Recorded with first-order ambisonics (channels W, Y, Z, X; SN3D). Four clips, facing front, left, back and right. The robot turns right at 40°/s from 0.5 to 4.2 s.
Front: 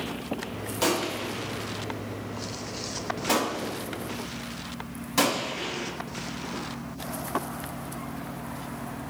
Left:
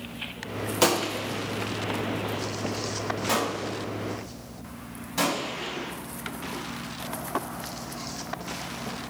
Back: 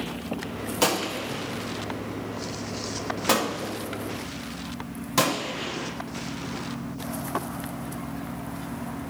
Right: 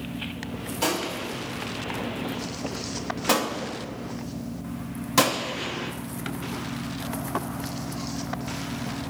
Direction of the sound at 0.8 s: 115° left.